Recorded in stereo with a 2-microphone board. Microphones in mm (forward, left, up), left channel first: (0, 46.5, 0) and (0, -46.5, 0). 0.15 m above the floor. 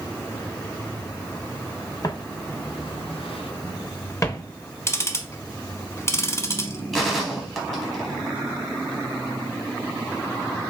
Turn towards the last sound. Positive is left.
turn(degrees=0)  # may be behind; listen again after turning